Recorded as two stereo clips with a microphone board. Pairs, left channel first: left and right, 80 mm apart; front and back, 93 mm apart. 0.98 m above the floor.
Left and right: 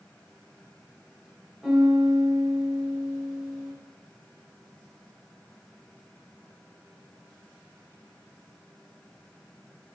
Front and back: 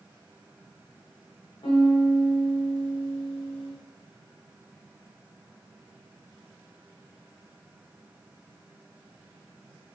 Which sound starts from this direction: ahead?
A piano, at 1.6 s.